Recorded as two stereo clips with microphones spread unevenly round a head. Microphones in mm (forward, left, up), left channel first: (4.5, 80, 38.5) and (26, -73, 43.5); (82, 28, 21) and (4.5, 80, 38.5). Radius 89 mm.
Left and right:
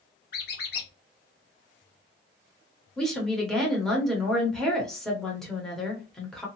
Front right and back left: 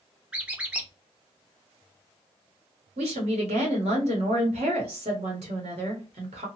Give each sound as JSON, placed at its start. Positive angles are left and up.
{"t": 0.3, "sound": "a squeak", "azimuth_deg": 80, "distance_m": 0.9}
{"t": 3.0, "sound": "a woman speaking", "azimuth_deg": -175, "distance_m": 0.9}